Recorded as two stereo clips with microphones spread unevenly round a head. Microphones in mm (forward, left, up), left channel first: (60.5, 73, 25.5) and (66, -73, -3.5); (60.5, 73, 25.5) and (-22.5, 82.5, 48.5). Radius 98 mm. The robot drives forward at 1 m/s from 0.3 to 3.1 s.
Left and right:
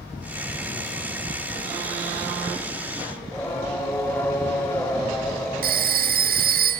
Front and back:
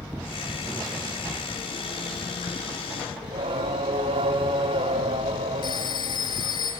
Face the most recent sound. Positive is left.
turn(degrees=-70)